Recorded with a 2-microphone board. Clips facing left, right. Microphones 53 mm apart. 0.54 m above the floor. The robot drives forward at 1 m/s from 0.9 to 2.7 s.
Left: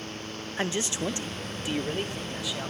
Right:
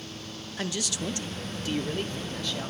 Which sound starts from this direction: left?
A man speaking, at 0.6 s.